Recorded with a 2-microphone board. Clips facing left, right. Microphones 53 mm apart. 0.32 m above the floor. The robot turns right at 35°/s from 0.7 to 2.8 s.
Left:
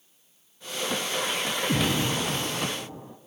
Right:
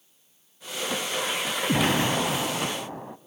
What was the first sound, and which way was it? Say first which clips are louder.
An explosion: right 4 dB; 130° right.